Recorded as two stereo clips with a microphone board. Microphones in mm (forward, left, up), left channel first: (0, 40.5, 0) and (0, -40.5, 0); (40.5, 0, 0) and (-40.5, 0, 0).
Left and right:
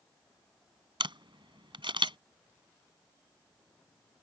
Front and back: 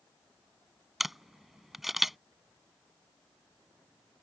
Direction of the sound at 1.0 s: 90° right.